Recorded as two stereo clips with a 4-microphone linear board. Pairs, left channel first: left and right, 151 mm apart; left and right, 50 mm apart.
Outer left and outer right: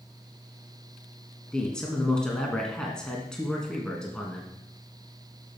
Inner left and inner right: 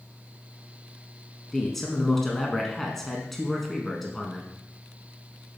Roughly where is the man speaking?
Centre.